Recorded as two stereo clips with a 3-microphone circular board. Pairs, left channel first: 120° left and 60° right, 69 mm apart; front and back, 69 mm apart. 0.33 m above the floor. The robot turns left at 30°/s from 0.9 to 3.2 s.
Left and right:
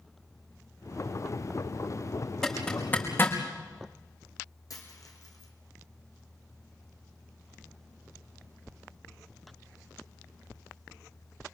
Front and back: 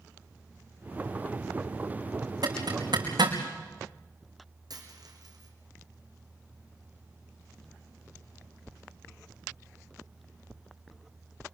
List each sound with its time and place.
2.4 s a zipper: 155° right, 5 m; by 3.4 s straight behind, 5 m
4.7 s a dropped coin: 155° left, 4 m